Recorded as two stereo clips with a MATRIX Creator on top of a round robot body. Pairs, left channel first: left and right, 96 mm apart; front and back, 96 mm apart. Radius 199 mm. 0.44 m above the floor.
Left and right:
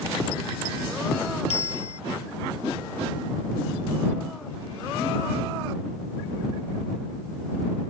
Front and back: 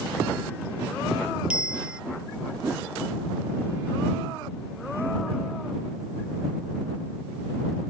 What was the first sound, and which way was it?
A bicycle bell, 100° left.